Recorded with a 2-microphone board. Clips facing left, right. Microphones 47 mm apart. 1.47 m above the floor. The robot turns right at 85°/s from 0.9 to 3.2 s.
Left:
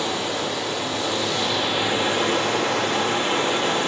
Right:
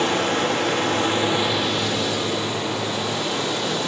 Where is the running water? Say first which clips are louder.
Right 4 dB; 60° right, 2.5 m; by 3.9 s 140° left, 2.5 m.